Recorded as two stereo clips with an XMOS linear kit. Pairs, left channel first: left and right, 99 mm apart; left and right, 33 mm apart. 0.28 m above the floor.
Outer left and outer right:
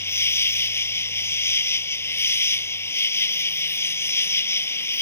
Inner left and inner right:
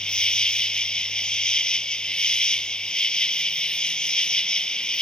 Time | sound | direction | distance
0.0 | an insect | 25° left (ahead or behind) | ?